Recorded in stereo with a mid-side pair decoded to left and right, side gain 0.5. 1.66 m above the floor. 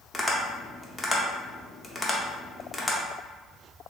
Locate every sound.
0.1 s tapping: 15° left, 0.6 m